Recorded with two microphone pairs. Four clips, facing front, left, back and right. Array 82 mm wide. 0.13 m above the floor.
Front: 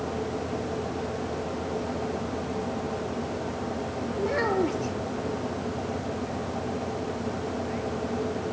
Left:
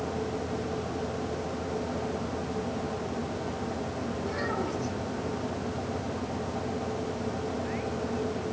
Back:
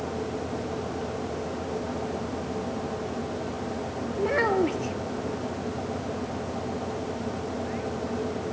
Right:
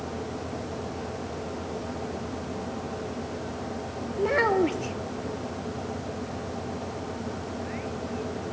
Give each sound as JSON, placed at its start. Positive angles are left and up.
{"t": 4.2, "sound": "a child speaking", "azimuth_deg": -120, "distance_m": 1.6}